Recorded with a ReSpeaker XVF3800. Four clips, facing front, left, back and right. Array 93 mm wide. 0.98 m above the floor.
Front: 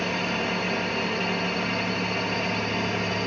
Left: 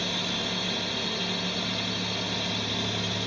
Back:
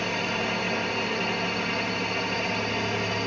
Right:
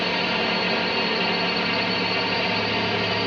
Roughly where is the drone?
Right.